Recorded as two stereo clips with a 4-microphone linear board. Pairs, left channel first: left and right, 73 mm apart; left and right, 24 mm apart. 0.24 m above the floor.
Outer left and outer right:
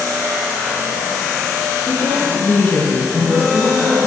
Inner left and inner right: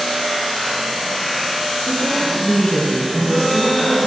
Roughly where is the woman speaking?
Left.